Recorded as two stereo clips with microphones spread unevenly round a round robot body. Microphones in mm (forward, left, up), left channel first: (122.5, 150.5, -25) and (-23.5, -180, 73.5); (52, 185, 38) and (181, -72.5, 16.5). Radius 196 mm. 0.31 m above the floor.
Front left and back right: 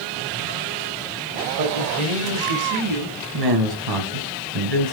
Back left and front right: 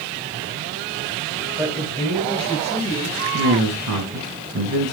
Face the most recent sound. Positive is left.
turn(degrees=-90)